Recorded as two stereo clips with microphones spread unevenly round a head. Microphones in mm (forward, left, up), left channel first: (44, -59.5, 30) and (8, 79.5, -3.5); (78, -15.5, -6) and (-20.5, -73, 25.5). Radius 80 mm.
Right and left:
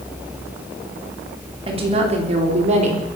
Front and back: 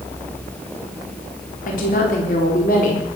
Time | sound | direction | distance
1.7 | a woman speaking | 50° left | 3.5 m